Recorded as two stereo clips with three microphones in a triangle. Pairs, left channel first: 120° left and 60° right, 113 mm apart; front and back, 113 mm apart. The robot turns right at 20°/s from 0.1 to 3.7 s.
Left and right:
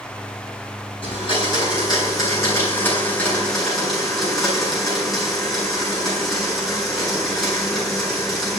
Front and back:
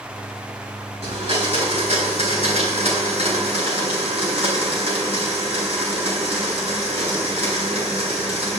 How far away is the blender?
About 8 m.